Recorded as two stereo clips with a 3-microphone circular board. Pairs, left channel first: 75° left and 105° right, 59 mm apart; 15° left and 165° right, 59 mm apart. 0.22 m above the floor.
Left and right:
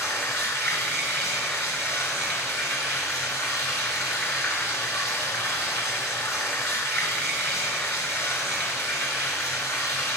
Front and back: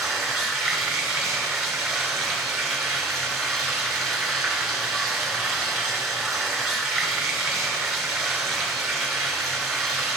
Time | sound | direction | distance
0.0 | running water | 110° left | 3 m